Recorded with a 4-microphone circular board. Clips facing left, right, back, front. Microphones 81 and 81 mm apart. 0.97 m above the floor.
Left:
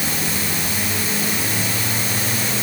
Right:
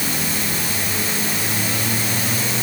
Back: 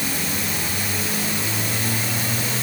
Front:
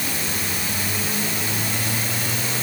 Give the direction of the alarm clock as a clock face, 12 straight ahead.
No alarm clock in this recording.